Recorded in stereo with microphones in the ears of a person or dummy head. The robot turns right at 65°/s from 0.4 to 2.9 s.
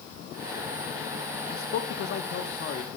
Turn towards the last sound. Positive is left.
turn(degrees=160)